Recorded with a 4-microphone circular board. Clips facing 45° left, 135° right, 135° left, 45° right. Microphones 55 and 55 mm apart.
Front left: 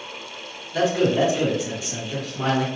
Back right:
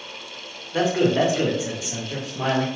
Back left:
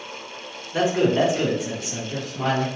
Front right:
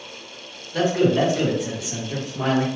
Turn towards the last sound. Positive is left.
turn(degrees=-60)